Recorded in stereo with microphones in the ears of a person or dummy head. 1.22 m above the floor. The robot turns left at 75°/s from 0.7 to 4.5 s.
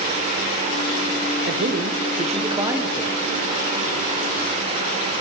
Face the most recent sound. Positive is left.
turn(degrees=55)